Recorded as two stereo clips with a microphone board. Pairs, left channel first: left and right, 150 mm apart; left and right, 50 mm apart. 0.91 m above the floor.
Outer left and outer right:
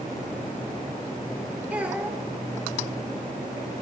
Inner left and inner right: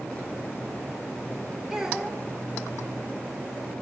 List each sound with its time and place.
1.7 s a child speaking: 10° right (ahead or behind), 1.7 m